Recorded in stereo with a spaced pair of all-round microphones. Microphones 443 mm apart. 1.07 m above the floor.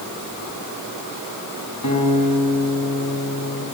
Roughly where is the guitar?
Left.